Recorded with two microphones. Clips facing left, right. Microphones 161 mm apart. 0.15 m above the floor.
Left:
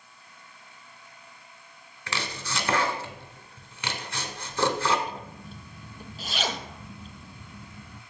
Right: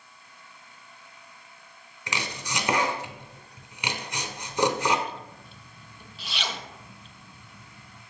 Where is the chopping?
15° right (ahead or behind), 0.9 m.